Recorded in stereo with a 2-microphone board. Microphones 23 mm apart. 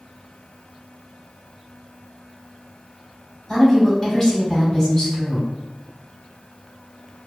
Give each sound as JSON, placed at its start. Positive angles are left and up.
{"t": 3.5, "sound": "a woman speaking", "side_deg": 25, "distance_m": 2.0}